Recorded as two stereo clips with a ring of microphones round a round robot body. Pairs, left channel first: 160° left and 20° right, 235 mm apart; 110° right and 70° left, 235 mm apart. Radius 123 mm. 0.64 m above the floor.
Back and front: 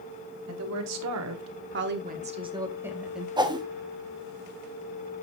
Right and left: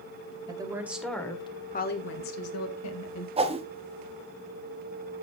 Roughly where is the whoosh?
Ahead left.